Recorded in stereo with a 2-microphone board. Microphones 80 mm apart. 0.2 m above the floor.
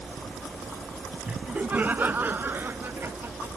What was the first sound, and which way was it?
Laughter, 10° right (ahead or behind).